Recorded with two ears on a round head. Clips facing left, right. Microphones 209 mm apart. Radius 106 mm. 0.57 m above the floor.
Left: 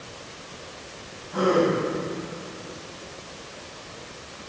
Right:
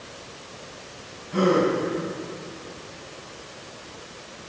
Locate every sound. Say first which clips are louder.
1.3 s a gasp: right 1 dB; 25° right (ahead or behind), 2 m